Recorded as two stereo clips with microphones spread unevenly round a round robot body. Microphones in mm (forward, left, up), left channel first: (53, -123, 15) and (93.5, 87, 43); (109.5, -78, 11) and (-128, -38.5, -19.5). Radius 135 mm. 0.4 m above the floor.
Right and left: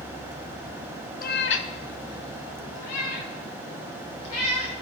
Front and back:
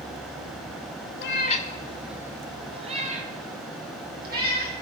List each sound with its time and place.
1.2 s a cat meowing: 50° right, 1.1 m; by 4.7 s 140° right, 4.5 m